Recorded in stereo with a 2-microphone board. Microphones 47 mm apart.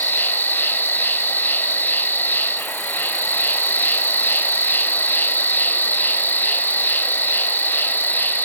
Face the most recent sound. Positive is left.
turn(degrees=45)  # may be behind; listen again after turning